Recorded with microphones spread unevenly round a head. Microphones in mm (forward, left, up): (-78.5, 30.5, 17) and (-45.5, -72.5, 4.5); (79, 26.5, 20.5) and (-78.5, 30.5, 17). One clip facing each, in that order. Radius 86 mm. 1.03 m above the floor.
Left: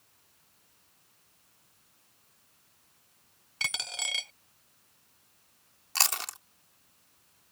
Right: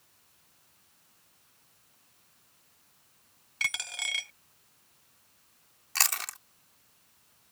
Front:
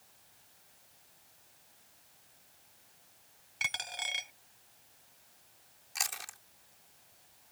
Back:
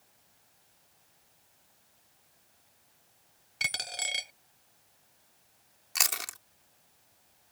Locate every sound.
3.6 s a dropped coin: 150° left
6.0 s chewing: 170° left